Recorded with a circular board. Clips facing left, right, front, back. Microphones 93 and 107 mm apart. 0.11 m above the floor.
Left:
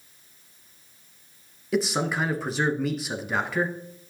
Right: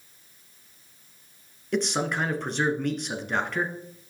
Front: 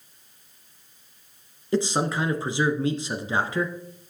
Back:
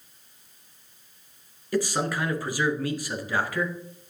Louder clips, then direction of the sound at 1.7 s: Left 1 dB, front 2 dB; 10° left.